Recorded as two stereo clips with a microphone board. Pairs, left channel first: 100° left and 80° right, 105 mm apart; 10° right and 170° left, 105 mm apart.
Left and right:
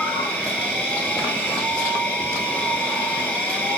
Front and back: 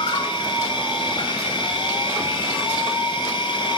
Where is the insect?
20° left, 2.5 m.